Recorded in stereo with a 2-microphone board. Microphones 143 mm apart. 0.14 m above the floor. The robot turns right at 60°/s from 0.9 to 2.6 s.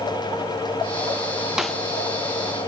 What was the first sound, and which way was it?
A snare drum, 5° right (ahead or behind).